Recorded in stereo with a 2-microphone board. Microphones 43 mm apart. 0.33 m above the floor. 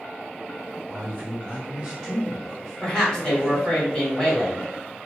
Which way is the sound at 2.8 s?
20° left (ahead or behind).